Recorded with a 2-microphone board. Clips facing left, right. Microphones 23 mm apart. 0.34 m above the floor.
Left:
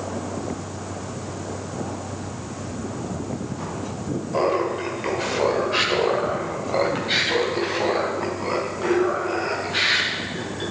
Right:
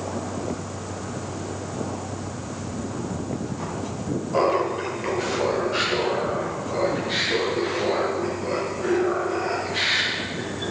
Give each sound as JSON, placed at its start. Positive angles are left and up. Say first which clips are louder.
{"t": 4.3, "sound": "laughter", "louder": "even", "side_deg": -5, "distance_m": 1.6}